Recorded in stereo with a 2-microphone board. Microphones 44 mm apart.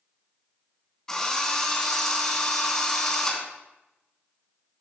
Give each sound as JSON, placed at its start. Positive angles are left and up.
{"t": 1.1, "sound": "a drill", "side_deg": 15, "distance_m": 2.5}